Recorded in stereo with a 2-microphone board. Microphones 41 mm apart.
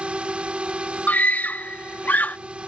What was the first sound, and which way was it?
A drone, 25° right (ahead or behind).